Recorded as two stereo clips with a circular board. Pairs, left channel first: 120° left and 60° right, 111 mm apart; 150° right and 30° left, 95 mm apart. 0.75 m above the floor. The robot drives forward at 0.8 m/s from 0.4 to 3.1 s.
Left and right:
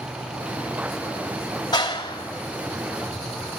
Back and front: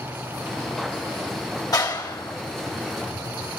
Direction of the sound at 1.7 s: 165° left.